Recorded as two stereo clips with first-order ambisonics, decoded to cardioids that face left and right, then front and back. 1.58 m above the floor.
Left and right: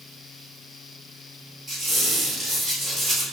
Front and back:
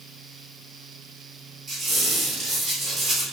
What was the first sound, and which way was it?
A squeak, 155° right.